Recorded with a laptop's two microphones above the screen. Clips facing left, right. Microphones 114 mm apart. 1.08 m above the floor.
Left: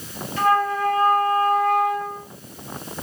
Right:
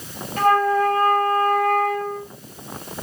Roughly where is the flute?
Right.